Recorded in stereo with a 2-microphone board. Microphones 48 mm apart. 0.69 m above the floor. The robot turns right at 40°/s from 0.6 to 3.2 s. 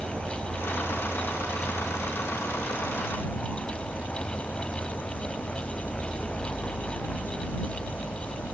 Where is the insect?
60° right; by 8.6 s 45° left.